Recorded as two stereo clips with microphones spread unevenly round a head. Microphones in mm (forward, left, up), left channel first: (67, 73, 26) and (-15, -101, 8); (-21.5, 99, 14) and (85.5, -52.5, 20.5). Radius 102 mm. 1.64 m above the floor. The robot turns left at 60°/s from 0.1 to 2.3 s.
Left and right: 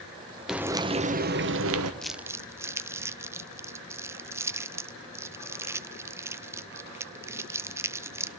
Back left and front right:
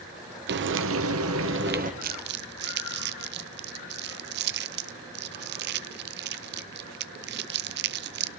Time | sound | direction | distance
0.5 | frying | 25° right | 1.1 m
2.0 | crumpling | 20° right | 0.6 m